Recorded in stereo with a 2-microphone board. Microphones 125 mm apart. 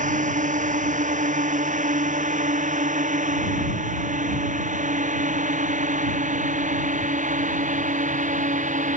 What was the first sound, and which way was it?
A drone, 85° right.